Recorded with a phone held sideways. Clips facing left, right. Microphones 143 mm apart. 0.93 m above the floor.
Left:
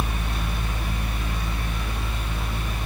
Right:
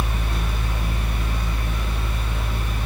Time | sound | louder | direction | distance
0.0 | a fan | right 1 dB | 65° right (ahead or behind) | 1.3 m